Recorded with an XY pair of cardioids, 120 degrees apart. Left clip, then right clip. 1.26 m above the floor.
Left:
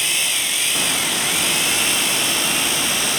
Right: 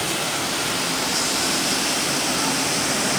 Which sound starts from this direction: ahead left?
A machine running, at 0.0 s.